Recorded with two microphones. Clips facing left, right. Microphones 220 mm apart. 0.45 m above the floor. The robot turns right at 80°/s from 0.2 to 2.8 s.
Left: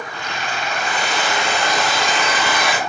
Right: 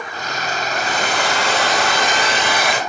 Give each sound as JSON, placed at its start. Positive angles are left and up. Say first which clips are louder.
{"t": 0.7, "sound": "a hair dryer", "louder": "right 2 dB", "azimuth_deg": -160, "distance_m": 1.9}